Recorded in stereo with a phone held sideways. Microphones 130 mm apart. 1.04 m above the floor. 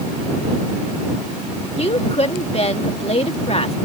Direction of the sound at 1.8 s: 50° left (ahead or behind).